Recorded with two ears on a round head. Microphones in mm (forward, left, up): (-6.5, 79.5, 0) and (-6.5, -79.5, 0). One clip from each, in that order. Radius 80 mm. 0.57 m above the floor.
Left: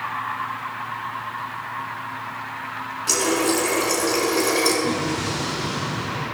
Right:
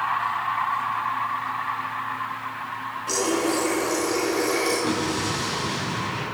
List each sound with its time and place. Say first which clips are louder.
3.1 s a running tap: left 3 dB; 40° left (ahead or behind), 4 m
4.8 s an explosion: left 1 dB; 70° right (ahead or behind), 5 m